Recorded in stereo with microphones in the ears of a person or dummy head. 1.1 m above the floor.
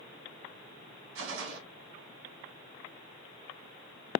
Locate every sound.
1.1 s a gunshot: 70° right (ahead or behind), 2.5 m